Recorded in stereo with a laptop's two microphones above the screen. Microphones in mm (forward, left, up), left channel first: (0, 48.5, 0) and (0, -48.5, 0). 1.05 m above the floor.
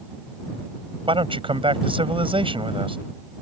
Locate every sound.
1.1 s a man speaking: 65° right (ahead or behind)